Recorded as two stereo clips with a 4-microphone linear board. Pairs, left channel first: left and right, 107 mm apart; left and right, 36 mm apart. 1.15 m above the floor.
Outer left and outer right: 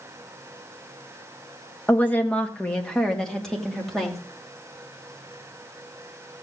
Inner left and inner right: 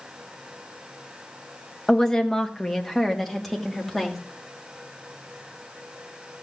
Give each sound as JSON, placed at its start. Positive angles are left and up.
{"t": 1.9, "sound": "a woman speaking", "side_deg": 20, "distance_m": 1.3}